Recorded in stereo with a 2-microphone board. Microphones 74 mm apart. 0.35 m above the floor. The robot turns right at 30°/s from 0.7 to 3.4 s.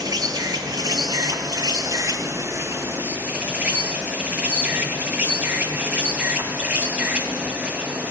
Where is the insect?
100° right, 2.5 m; by 8.1 s 20° right, 2.5 m.